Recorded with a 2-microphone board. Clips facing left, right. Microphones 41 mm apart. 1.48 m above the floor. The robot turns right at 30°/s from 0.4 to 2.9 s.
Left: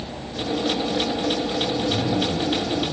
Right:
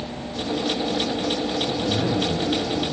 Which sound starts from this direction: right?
A zipper, at 1.7 s.